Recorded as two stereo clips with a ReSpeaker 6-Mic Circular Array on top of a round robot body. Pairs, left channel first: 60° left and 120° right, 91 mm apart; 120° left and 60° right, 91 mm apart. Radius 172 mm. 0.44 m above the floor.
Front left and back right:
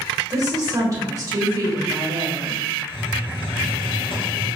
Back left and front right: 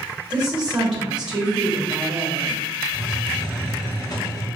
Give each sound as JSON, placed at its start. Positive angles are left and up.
{"t": 0.3, "sound": "a woman speaking", "azimuth_deg": -135, "distance_m": 1.5}
{"t": 2.9, "sound": "a hiss", "azimuth_deg": 75, "distance_m": 1.3}